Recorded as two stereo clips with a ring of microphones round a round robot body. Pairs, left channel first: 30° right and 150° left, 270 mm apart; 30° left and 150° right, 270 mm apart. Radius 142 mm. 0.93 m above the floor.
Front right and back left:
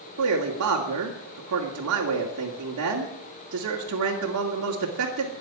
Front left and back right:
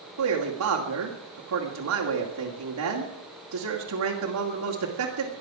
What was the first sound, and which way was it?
A man speaking, 175° right.